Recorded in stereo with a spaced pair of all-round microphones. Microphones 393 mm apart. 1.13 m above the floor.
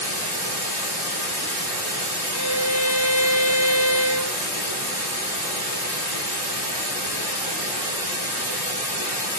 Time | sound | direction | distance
0.0 | running water | 15° right (ahead or behind) | 2 m
2.3 | a violin | centre (ahead or behind) | 2 m